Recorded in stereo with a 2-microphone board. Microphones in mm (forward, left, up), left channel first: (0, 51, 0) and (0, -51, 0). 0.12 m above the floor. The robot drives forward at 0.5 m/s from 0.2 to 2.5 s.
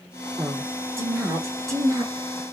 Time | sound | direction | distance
0.4 | a woman speaking | 25° right (ahead or behind) | 2.5 m